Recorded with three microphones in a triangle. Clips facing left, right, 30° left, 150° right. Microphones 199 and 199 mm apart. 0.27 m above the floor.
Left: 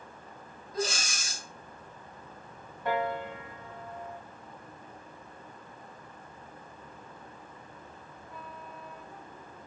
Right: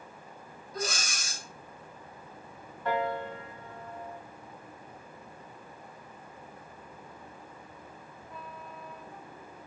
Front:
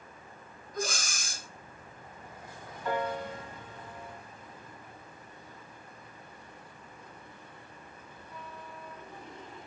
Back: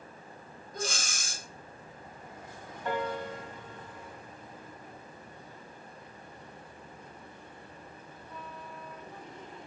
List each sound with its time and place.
0.7 s breathing: 155° left, 0.6 m
2.9 s a piano: 155° left, 1.1 m